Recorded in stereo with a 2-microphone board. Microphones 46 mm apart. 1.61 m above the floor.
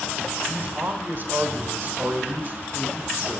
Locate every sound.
0.5 s a man speaking: 50° right (ahead or behind), 3 m